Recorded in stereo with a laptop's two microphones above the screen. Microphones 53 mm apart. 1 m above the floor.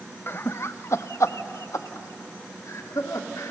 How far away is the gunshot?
I don't hear a gunshot.